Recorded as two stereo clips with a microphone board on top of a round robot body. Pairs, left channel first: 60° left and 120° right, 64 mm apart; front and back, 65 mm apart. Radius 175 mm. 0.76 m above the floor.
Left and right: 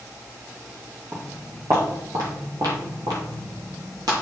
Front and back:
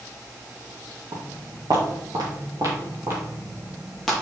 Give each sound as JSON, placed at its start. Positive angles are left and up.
{"t": 1.1, "sound": "footsteps", "azimuth_deg": -160, "distance_m": 2.5}